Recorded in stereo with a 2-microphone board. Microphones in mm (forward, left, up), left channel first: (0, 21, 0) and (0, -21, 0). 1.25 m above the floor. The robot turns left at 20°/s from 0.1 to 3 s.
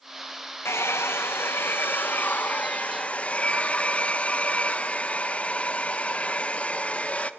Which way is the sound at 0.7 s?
80° left.